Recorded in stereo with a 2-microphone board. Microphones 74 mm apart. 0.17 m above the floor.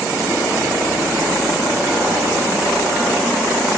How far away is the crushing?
No crushing in this recording.